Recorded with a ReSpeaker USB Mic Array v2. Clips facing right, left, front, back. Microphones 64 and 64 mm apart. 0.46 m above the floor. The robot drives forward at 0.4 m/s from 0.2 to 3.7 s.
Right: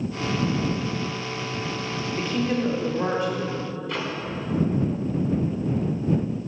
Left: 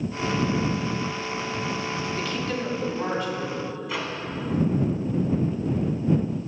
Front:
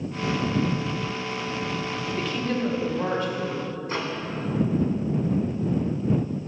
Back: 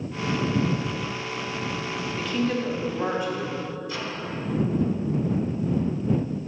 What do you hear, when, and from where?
2.2 s a woman speaking: 85° right, 1.3 m; by 3.8 s 140° right, 1.4 m
3.9 s a microwave: 5° left, 1.0 m